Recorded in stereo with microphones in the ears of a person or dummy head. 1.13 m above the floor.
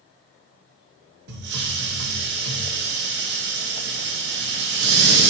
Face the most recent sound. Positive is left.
turn(degrees=-60)  # may be behind; listen again after turning